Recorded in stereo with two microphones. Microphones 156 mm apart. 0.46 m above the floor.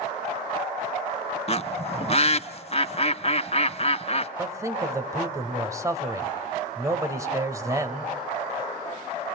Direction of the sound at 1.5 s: 40° left (ahead or behind).